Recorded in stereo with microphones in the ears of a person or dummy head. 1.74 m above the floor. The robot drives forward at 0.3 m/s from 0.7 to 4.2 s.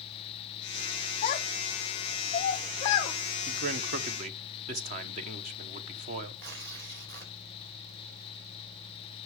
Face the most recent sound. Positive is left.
turn(degrees=-75)  # may be behind; listen again after turning